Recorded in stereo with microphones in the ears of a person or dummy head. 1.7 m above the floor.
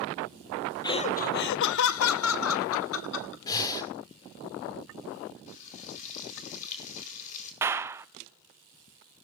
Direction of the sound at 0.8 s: 25° left (ahead or behind).